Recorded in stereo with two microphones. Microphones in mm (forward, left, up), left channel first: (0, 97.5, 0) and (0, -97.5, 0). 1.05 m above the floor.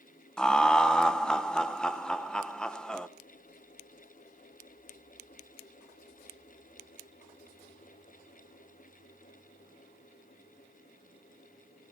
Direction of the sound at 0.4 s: 5° left (ahead or behind).